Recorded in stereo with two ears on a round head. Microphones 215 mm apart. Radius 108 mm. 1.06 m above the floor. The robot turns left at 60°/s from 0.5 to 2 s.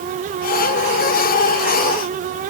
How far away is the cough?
I don't hear a cough.